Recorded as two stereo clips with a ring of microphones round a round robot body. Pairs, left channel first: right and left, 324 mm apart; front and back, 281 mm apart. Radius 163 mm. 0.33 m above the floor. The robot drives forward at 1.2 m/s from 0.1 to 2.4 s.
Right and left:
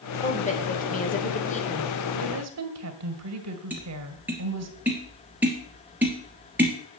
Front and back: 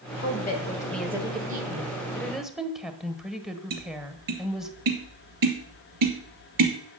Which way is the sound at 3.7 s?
175° left.